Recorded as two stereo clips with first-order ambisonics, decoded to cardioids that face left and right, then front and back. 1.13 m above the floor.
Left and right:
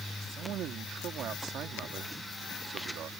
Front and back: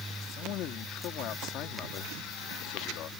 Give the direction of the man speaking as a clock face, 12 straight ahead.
1 o'clock.